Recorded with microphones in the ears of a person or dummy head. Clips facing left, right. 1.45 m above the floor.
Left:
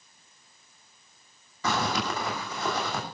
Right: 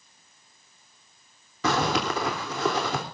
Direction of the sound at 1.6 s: 60° right (ahead or behind).